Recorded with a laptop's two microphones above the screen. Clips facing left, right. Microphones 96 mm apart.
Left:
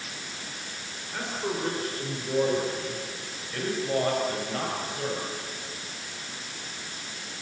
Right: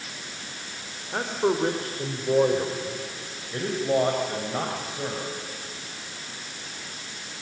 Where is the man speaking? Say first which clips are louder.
Right 7 dB; 45° right (ahead or behind), 3.5 m; by 5.2 s 20° right (ahead or behind), 6 m.